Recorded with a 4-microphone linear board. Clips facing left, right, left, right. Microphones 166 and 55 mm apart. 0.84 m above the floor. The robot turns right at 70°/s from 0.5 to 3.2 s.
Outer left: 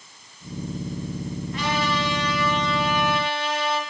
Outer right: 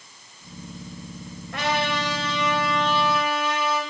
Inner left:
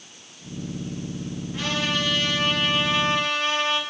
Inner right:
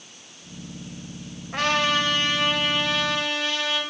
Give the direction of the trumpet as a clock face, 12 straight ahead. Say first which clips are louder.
Outer right 1 dB, inner right 5 dB; 3 o'clock.